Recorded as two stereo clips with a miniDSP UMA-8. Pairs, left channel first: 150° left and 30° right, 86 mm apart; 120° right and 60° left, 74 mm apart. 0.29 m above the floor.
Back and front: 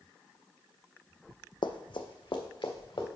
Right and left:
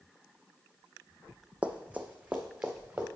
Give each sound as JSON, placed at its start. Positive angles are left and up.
{"t": 1.6, "sound": "running footsteps", "azimuth_deg": 135, "distance_m": 0.7}